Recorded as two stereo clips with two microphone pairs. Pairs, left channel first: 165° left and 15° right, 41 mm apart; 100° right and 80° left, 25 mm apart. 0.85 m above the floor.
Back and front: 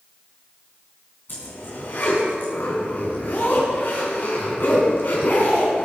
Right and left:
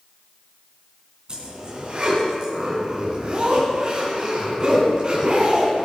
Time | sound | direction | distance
1.3 | a zipper | 135° left | 3.5 m